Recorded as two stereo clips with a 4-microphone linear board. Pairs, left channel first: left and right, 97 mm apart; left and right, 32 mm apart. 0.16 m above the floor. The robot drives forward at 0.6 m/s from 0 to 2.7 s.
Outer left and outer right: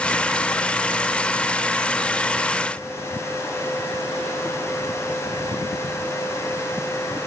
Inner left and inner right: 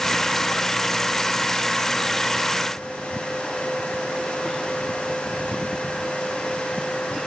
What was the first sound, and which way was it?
Only background noise.